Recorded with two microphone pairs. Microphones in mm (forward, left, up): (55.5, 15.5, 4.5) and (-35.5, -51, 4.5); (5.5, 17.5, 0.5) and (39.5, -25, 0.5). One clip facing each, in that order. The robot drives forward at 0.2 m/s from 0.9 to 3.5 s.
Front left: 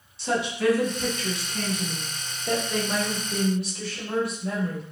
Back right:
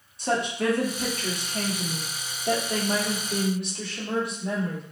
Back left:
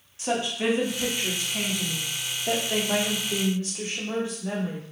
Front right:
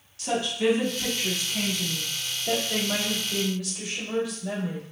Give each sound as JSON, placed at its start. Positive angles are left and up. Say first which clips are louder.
{"t": 0.2, "sound": "a woman speaking", "louder": "front left 1 dB, front right 1 dB", "azimuth_deg": -170, "distance_m": 1.0}